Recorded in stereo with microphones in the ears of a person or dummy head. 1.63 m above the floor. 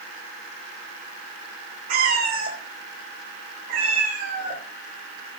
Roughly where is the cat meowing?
Right.